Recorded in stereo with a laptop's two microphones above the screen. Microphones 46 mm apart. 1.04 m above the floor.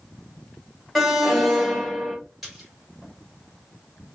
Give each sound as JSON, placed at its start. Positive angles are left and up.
{"t": 0.9, "sound": "an alarm", "side_deg": 0, "distance_m": 1.0}
{"t": 2.4, "sound": "a splash", "side_deg": -5, "distance_m": 2.5}